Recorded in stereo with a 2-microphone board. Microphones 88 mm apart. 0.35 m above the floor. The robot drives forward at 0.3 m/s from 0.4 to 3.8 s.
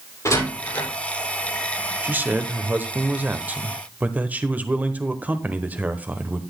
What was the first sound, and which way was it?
A door slam, 35° left (ahead or behind).